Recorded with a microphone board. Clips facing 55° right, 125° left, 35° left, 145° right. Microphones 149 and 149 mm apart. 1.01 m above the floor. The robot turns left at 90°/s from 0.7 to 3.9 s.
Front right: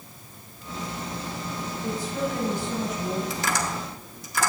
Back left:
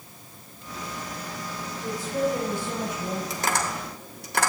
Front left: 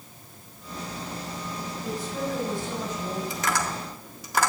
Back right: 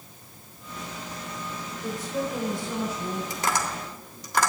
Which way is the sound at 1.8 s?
165° right.